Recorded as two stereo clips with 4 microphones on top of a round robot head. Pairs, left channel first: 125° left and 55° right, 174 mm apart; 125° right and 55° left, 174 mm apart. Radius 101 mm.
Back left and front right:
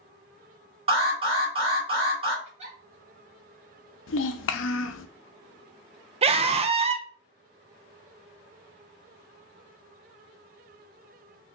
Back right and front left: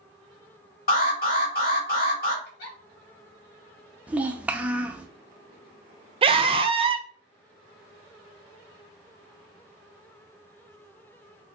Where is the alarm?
110° right, 2.5 m.